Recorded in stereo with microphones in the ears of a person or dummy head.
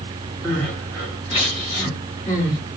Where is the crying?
20° left (ahead or behind), 1.7 m.